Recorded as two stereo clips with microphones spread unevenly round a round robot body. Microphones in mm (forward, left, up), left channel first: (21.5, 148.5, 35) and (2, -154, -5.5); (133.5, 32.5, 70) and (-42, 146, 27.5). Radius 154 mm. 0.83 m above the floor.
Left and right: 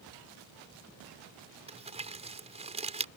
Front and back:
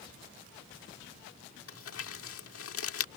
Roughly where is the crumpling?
Ahead right.